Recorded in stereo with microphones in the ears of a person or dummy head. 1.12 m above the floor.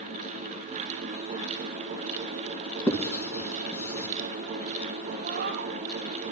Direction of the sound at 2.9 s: 10° left (ahead or behind).